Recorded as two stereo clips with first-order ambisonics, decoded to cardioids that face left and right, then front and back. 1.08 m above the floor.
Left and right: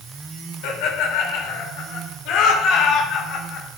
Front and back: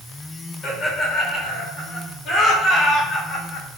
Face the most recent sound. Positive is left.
turn(degrees=50)